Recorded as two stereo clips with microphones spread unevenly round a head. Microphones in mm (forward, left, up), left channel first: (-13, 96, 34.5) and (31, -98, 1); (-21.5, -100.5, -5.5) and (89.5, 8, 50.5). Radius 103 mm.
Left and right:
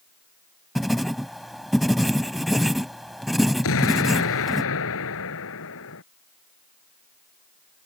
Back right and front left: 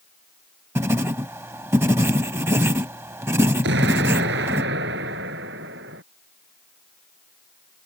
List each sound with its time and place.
0.8 s writing: 30° left
3.6 s an explosion: 80° left